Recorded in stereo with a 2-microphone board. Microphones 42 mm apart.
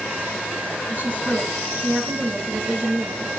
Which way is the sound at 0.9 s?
40° right (ahead or behind).